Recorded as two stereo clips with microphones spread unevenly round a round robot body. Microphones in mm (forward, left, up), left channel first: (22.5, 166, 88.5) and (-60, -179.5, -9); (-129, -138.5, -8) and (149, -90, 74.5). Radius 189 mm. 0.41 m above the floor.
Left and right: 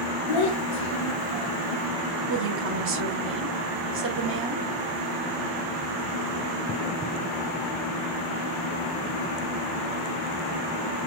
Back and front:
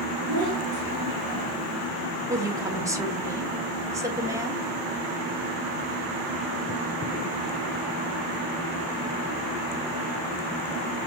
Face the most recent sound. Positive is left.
turn(degrees=-85)